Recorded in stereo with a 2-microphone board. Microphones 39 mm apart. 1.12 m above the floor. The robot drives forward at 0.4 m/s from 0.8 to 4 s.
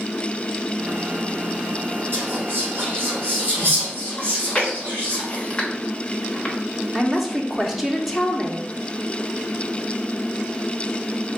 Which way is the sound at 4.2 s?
25° left (ahead or behind).